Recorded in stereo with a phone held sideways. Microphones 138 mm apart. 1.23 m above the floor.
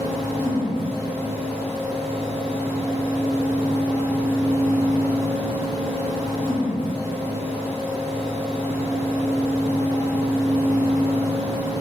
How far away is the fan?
About 1.3 m.